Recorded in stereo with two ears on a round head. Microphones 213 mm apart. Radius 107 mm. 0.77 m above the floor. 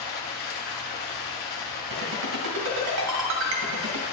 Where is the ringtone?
80° right, 2.5 m.